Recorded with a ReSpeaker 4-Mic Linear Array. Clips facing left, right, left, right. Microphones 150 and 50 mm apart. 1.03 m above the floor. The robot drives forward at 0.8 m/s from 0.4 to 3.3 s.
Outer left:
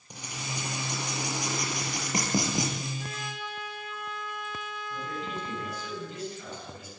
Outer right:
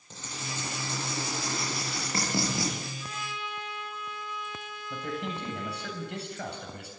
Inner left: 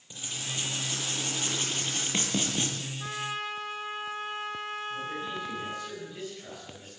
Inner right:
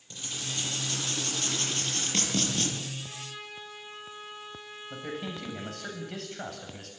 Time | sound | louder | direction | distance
0.1 | writing | outer left 1 dB, even | 15° left (ahead or behind) | 8 m
3.0 | a trumpet | outer left 1 dB, inner left 8 dB | 65° left (ahead or behind) | 2 m
4.9 | a man speaking | outer right 3 dB, inner left 3 dB | 70° right (ahead or behind) | 8 m